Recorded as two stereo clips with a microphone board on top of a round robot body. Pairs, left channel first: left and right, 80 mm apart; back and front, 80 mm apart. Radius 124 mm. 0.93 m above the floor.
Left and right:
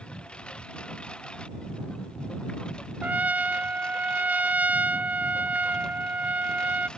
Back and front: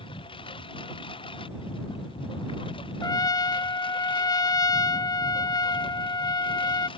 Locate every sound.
0.0 s a lawn mower: 170° left
3.0 s a trumpet: 160° right